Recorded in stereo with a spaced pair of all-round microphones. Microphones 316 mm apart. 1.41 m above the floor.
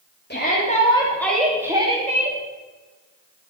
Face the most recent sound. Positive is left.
turn(degrees=-25)  # may be behind; listen again after turning